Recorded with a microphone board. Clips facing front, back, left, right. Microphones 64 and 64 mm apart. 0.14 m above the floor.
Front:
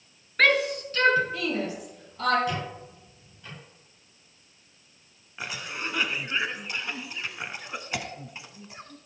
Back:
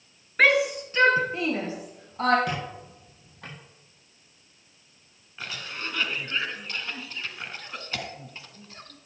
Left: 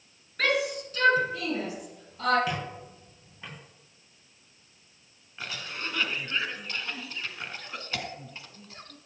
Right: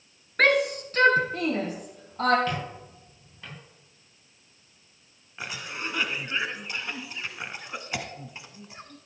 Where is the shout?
105° right, 1.8 m; by 2.4 s 130° right, 4 m.